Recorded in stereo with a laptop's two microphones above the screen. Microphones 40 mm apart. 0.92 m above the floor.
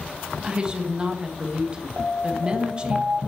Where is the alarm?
60° right (ahead or behind), 2 m.